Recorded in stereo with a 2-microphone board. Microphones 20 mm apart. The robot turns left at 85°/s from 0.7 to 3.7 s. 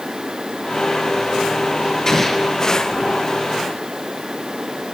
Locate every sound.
2.1 s an explosion: 25° left, 4.5 m; by 2.6 s 20° right, 4.5 m